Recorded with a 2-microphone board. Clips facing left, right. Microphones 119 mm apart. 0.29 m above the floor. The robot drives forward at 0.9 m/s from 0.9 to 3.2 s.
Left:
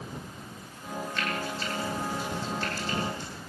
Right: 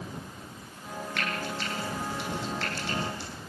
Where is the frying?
70° right (ahead or behind), 8 m; by 3.3 s 85° right, 7.5 m.